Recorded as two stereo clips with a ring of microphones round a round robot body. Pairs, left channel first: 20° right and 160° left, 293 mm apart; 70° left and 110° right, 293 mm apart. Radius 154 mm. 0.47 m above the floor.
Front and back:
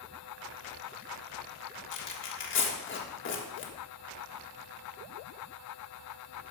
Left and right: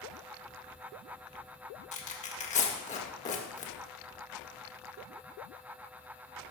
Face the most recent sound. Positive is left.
turn(degrees=10)